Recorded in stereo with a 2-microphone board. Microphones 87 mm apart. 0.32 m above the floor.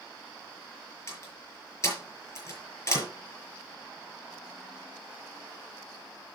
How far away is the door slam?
About 4.5 m.